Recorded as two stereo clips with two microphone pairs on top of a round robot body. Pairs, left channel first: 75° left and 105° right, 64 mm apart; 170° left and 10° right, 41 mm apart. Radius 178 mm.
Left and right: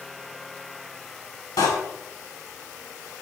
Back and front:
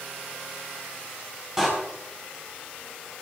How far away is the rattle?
No rattle in this recording.